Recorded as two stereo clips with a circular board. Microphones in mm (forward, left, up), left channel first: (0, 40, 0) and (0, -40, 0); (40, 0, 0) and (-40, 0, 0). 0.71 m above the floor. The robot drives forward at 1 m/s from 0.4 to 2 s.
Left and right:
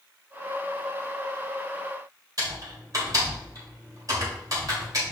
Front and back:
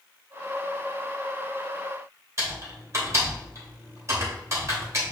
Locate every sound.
2.4 s typing on a keyboard: 130° right, 3.5 m